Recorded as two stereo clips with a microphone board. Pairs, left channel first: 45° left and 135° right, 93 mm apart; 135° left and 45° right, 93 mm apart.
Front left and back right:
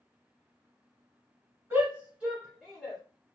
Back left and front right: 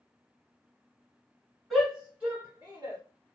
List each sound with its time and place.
1.7 s a shout: 135° right, 1.7 m; by 3.0 s 30° right, 1.8 m